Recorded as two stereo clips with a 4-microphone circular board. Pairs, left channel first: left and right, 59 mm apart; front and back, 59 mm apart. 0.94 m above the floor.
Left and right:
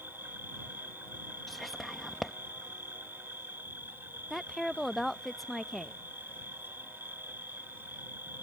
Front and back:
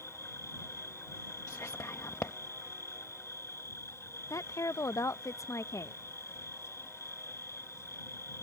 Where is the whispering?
5° left.